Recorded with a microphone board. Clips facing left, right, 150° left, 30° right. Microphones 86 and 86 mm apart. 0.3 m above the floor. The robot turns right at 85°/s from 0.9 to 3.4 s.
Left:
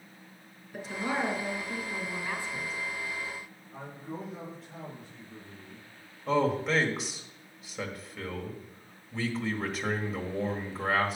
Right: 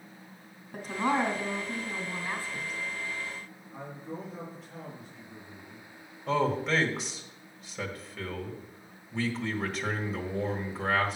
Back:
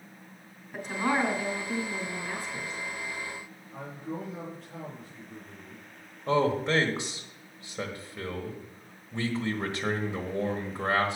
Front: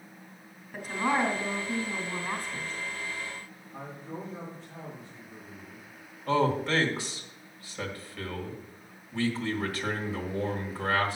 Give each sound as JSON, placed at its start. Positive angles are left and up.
{"t": 0.7, "sound": "a woman speaking", "azimuth_deg": -115, "distance_m": 2.5}
{"t": 3.7, "sound": "a man speaking", "azimuth_deg": 180, "distance_m": 5.0}
{"t": 6.3, "sound": "a man speaking", "azimuth_deg": 175, "distance_m": 1.5}